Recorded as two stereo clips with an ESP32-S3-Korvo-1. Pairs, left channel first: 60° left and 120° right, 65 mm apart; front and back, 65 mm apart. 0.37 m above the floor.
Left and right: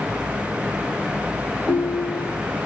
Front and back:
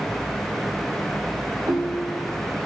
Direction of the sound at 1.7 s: 165° left.